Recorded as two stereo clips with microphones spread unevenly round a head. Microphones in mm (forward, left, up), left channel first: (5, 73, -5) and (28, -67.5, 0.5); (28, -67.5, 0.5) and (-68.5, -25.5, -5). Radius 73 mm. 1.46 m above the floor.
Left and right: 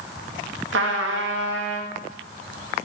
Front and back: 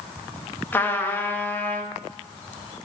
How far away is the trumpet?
About 0.9 m.